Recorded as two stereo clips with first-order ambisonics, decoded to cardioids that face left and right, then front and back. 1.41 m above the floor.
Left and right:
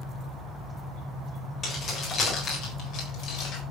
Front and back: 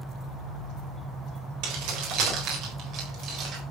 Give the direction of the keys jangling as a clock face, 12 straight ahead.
7 o'clock.